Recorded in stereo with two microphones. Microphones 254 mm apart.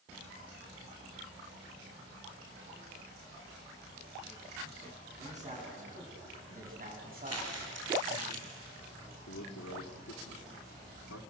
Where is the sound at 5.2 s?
25° right (ahead or behind), 9.5 m; by 8.2 s 45° right (ahead or behind), 6 m.